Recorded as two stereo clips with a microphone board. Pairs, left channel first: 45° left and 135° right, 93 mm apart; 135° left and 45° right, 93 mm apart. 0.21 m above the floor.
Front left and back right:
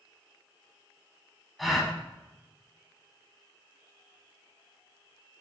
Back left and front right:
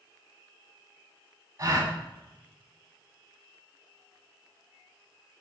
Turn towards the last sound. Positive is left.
turn(degrees=-45)